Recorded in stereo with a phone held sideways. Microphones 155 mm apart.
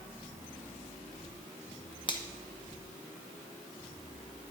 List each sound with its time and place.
2.1 s a finger snap: 30° left (ahead or behind), 1.2 m